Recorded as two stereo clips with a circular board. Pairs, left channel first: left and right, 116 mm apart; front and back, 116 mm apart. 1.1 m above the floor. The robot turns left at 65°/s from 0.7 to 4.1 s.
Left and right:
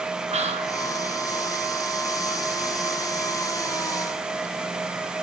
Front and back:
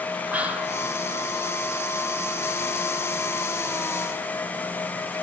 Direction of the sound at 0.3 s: 105° right.